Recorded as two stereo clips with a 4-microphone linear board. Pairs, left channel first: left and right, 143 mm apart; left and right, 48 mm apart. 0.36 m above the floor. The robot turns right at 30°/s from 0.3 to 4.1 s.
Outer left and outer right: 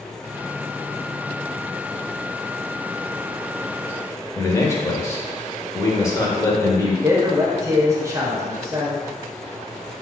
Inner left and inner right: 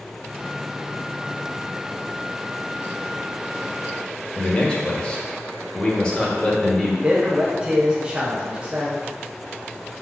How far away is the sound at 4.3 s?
About 0.9 m.